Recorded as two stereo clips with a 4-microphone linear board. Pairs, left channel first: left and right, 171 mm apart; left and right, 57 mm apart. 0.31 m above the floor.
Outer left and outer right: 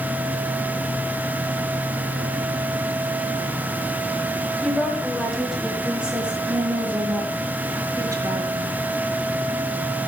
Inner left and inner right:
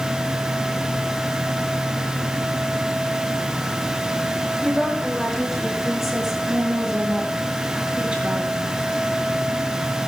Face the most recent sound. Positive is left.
turn(degrees=-25)  # may be behind; listen again after turning